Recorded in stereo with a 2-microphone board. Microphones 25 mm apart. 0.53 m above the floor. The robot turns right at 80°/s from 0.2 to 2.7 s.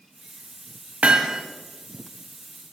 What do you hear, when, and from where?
1.0 s hammering: 65° right, 0.7 m; by 1.4 s 30° right, 0.7 m